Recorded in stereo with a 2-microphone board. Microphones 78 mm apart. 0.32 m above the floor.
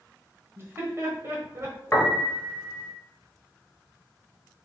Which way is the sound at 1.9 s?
25° left (ahead or behind).